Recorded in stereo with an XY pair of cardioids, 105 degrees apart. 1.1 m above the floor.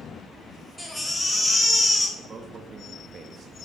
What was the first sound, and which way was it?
A baby crying, 5° left.